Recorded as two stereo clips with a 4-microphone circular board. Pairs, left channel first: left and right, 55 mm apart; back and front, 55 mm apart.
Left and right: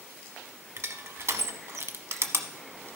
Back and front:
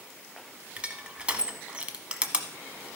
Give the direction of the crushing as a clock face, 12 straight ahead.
2 o'clock.